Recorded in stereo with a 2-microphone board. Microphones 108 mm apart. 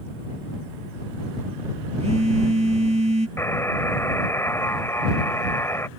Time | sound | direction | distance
2.0 | a phone buzzing | 75° right (ahead or behind) | ?
3.4 | a buzzer | 25° left (ahead or behind) | ?